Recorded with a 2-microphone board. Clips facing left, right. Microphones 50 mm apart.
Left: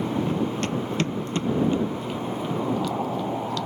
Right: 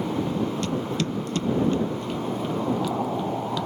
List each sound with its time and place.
0.3 s running footsteps: 50° left (ahead or behind); by 3.7 s 20° right (ahead or behind)